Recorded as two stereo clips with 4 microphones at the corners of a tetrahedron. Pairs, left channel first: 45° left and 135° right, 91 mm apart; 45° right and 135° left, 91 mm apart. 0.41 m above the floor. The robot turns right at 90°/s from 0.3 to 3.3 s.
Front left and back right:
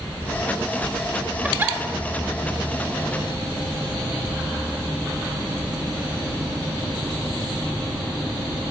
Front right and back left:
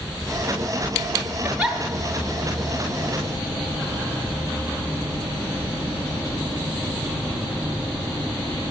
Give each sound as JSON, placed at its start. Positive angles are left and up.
{"t": 1.4, "sound": "a giggle", "azimuth_deg": 175, "distance_m": 1.1}